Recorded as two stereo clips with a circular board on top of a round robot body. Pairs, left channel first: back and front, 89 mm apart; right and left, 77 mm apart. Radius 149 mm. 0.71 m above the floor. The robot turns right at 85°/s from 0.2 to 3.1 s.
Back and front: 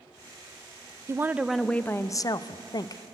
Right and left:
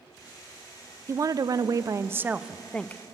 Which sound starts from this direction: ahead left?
A woman speaking, at 1.1 s.